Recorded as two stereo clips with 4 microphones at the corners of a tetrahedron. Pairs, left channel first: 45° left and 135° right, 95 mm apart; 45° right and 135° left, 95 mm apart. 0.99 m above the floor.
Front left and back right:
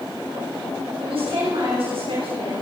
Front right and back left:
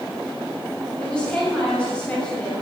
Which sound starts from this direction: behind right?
A woman speaking, at 1.0 s.